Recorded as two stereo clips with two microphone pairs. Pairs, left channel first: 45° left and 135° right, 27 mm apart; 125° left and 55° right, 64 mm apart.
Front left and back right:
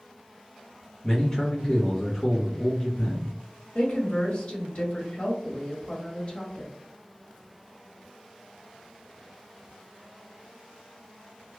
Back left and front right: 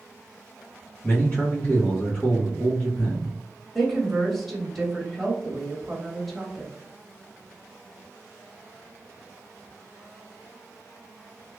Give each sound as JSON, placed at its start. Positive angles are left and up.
{"t": 1.0, "sound": "a man speaking", "azimuth_deg": 100, "distance_m": 0.9}
{"t": 3.8, "sound": "a woman speaking", "azimuth_deg": 40, "distance_m": 1.3}